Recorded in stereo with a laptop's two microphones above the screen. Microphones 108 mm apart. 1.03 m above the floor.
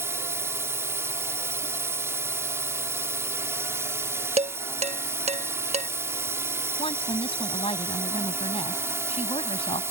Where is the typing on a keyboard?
No typing on a keyboard in this recording.